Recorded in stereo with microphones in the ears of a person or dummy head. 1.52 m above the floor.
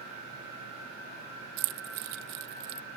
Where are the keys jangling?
55° right (ahead or behind).